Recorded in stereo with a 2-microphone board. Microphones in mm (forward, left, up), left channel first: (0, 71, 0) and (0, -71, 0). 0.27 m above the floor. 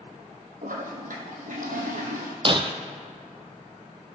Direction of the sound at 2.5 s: 40° right (ahead or behind).